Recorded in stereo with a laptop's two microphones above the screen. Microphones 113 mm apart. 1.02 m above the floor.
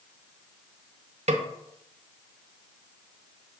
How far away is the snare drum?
About 0.7 m.